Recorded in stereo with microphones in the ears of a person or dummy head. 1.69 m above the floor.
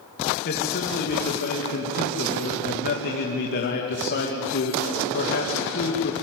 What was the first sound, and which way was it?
A man speaking, 45° left (ahead or behind).